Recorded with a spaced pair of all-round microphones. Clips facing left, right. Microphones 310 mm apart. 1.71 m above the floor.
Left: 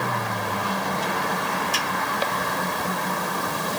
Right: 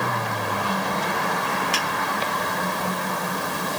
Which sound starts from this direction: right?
A finger snap, at 1.7 s.